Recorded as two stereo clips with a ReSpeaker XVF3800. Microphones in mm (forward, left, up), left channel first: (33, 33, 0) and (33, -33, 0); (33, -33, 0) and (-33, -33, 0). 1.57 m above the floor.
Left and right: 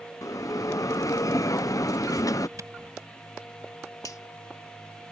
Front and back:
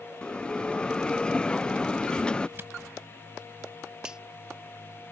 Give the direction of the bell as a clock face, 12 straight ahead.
10 o'clock.